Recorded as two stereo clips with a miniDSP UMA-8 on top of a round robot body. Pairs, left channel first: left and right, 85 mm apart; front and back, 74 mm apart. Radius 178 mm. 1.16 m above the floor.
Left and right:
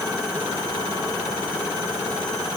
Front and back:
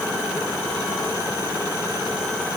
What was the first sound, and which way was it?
Only background noise.